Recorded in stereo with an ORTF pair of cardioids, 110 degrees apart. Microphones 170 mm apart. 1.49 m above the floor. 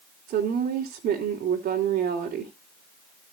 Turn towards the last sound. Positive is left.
turn(degrees=-65)